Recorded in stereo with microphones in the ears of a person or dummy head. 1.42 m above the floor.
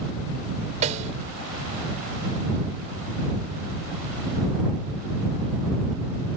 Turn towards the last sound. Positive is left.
turn(degrees=-35)  # may be behind; listen again after turning